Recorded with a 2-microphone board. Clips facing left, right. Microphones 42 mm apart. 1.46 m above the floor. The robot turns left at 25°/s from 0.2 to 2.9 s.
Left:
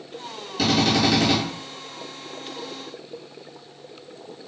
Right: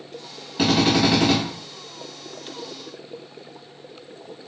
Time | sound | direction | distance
0.6 | a drill | 30° right (ahead or behind) | 2.5 m